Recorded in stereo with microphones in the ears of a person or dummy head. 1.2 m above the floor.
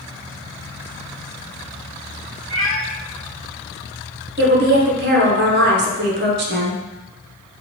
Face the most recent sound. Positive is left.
turn(degrees=-40)  # may be behind; listen again after turning